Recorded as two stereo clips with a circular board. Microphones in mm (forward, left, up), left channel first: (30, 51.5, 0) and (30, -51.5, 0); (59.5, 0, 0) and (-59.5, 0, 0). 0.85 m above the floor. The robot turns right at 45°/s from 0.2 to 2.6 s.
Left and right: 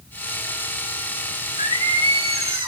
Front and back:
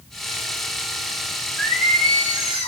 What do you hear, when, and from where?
1.6 s singing: 70° right, 5.5 m; by 2.7 s 25° right, 5.5 m